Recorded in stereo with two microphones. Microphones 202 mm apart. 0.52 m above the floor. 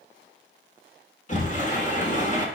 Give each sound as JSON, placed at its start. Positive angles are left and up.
{"t": 1.3, "sound": "a sliding door", "side_deg": 40, "distance_m": 1.4}